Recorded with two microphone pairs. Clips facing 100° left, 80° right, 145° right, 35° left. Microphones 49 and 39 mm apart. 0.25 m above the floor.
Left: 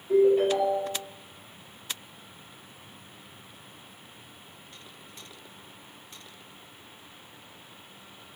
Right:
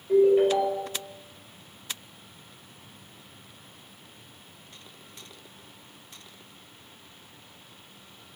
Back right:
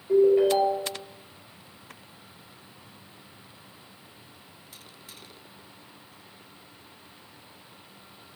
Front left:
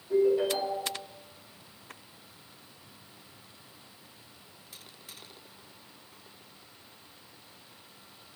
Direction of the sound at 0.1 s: 150° right.